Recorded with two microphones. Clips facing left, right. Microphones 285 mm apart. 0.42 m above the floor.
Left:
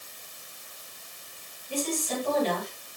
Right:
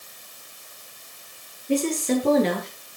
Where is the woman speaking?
80° right, 9.5 m.